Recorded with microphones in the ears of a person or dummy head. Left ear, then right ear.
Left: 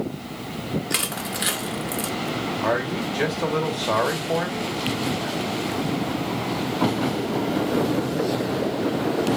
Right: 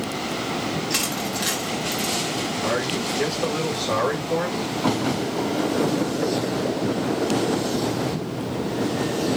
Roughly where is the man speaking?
Left.